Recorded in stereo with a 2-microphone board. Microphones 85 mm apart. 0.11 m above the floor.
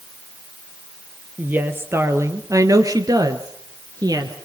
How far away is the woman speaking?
About 3 m.